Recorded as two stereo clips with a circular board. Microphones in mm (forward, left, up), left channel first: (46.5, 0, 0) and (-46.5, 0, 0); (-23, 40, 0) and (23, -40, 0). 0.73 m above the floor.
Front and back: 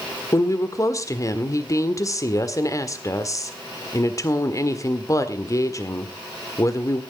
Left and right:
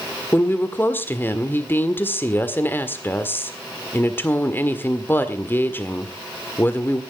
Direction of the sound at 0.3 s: 55° left.